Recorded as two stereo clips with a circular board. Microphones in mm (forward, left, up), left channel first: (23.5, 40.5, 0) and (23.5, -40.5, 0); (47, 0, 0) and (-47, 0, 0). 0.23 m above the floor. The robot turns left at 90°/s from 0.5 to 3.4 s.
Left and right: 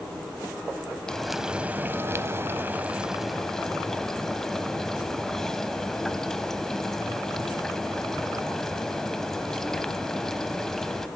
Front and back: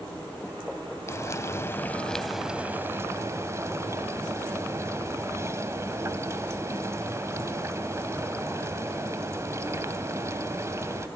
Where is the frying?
20° left, 0.9 m; by 11.1 s 170° left, 0.9 m.